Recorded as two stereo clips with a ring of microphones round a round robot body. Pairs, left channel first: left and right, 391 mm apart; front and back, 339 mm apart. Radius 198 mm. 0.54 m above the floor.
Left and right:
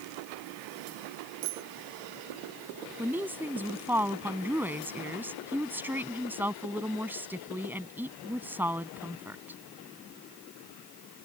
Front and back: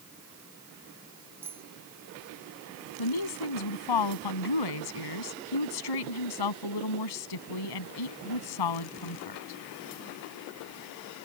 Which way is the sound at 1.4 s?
95° right.